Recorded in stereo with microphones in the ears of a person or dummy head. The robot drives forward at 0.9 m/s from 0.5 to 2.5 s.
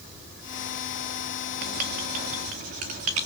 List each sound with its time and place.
1.6 s writing: 55° right (ahead or behind), 1.7 m; by 3.3 s 45° right (ahead or behind), 1.9 m